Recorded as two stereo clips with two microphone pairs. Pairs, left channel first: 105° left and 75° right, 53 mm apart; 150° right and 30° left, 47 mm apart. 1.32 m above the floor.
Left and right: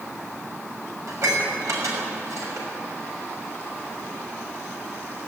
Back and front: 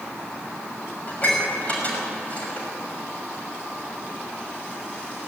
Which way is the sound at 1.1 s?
90° right.